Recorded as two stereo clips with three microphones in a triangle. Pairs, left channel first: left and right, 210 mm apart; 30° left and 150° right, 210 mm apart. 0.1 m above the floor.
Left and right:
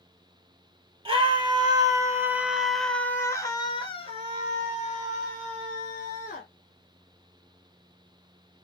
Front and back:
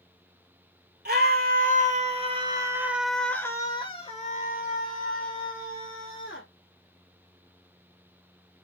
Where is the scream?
145° right, 1.7 m; by 6.5 s 45° left, 2.5 m.